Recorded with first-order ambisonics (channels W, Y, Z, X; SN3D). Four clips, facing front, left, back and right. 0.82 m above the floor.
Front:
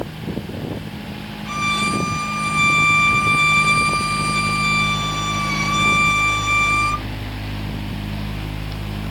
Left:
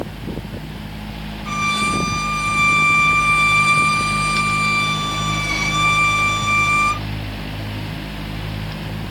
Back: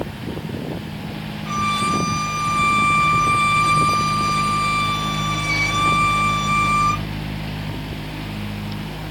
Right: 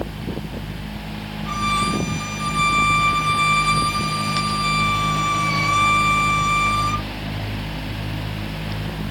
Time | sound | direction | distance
1.4 | a violin | 80° left | 1.8 m